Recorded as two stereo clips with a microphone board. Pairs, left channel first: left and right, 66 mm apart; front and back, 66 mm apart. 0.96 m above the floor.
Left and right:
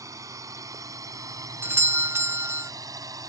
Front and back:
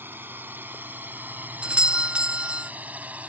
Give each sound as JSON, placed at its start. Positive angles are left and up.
{"t": 0.0, "sound": "a drone", "azimuth_deg": -120}
{"t": 1.6, "sound": "a doorbell", "azimuth_deg": -115}